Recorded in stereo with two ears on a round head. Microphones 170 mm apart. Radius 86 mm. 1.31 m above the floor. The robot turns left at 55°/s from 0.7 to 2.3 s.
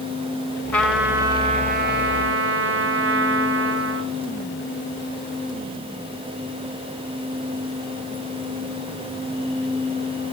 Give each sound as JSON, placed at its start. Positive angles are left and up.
{"t": 0.7, "sound": "a trumpet", "azimuth_deg": 10, "distance_m": 3.5}